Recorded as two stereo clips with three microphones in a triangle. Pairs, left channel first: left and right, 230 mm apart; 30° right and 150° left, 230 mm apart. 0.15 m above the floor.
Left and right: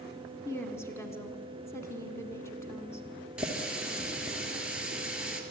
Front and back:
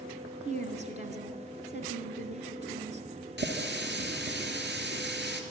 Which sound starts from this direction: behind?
A running tap, at 3.4 s.